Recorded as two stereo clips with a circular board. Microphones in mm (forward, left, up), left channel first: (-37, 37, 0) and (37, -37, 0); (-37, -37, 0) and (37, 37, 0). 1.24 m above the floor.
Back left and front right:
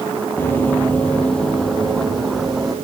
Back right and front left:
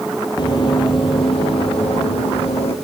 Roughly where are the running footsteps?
Behind.